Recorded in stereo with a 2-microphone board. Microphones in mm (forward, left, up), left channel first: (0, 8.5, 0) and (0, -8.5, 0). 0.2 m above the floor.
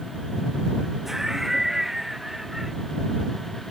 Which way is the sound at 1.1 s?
15° right (ahead or behind).